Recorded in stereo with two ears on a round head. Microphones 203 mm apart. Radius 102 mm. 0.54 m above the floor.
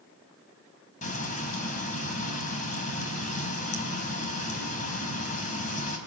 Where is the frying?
35° left (ahead or behind), 4 m.